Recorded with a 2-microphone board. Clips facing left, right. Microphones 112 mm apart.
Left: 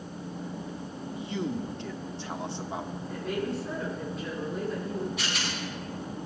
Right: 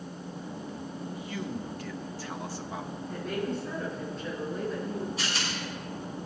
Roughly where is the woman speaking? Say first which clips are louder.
Even; centre.